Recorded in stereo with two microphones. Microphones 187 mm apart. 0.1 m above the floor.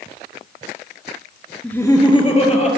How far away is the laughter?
About 1.3 m.